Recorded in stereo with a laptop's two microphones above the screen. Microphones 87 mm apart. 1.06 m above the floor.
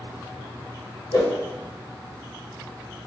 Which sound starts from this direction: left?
A whoosh, at 1.1 s.